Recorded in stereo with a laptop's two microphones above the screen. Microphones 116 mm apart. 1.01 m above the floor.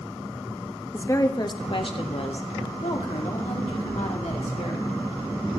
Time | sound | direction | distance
0.9 | a woman speaking | 20° left (ahead or behind) | 1.2 m